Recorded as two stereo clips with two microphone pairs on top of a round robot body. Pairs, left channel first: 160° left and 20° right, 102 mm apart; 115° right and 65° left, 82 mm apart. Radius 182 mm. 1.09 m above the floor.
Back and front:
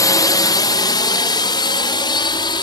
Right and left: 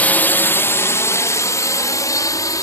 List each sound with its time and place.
0.0 s a drone: 175° right; by 2.6 s 160° right